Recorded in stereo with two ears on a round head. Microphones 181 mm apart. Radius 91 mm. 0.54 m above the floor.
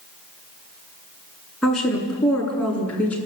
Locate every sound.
1.6 s a woman speaking: centre (ahead or behind), 7.5 m; by 3.2 s 10° left (ahead or behind), 7 m